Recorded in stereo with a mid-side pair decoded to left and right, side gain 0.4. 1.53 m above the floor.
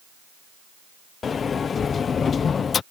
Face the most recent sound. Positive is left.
turn(degrees=50)